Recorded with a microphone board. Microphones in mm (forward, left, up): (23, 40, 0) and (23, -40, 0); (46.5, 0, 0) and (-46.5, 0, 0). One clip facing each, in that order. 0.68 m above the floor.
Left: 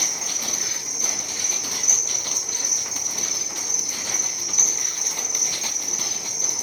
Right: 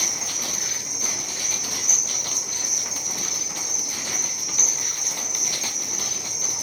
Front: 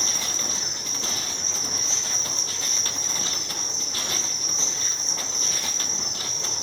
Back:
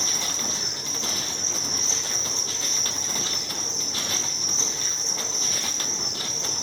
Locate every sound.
0.0 s an insect: 170° left, 6.5 m